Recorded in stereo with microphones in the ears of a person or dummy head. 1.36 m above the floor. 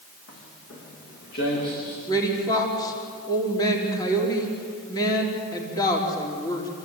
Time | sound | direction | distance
0.3 | footsteps | 70° left (ahead or behind) | 7.5 m
2.1 | a woman speaking | 20° left (ahead or behind) | 3.5 m